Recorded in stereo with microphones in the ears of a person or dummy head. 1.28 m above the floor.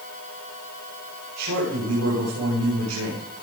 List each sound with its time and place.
1.4 s a man speaking: 90° right, 4.5 m